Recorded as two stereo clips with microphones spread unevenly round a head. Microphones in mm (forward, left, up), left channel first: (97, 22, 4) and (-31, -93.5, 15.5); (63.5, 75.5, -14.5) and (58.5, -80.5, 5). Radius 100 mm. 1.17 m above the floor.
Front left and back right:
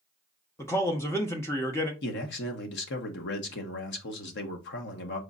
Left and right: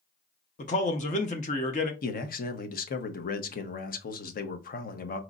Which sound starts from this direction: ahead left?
A man speaking, at 2.0 s.